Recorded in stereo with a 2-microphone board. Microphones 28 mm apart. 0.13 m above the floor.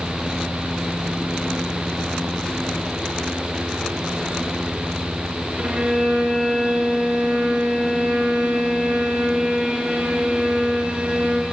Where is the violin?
60° right (ahead or behind), 8 m.